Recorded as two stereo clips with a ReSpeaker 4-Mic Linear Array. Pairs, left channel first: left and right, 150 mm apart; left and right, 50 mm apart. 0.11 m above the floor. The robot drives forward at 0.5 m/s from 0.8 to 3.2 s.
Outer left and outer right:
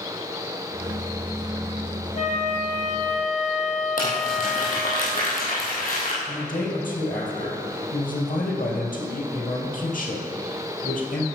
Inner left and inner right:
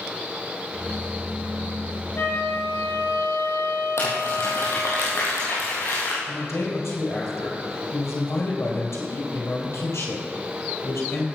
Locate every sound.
2.1 s a flute: 55° left (ahead or behind), 2 m; by 5.0 s 60° left (ahead or behind), 2.0 m
4.0 s crumpling: 70° left (ahead or behind), 4 m
6.3 s a man speaking: 65° left (ahead or behind), 2.5 m